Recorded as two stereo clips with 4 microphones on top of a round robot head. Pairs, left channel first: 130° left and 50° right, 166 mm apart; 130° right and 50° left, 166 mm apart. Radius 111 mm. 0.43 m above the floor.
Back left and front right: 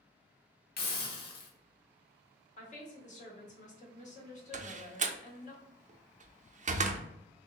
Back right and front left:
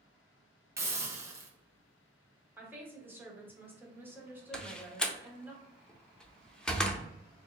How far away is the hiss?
About 1.0 m.